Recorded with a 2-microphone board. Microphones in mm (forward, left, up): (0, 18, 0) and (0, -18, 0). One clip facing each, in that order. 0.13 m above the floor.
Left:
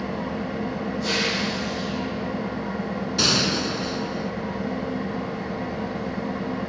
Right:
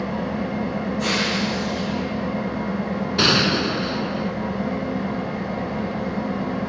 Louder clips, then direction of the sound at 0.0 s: Right 3 dB; 80° right.